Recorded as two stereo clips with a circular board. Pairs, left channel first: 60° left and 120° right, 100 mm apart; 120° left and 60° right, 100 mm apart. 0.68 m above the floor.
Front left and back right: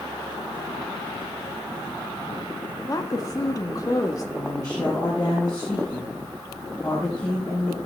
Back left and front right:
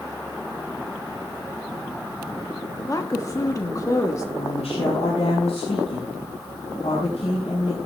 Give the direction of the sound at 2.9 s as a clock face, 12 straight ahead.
9 o'clock.